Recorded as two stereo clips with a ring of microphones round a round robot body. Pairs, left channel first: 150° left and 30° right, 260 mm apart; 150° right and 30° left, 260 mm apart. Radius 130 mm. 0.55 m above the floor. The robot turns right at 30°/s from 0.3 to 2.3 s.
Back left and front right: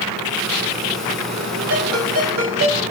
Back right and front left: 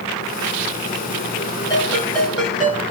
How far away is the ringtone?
About 6 m.